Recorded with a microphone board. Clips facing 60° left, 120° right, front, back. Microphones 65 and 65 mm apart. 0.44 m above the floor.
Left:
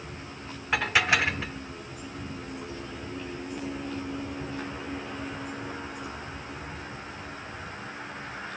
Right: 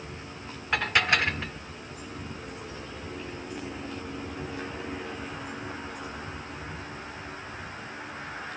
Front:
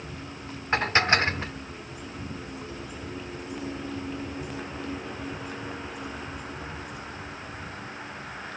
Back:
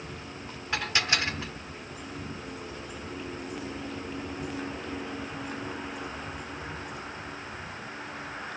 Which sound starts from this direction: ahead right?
Dishes clattering, at 0.7 s.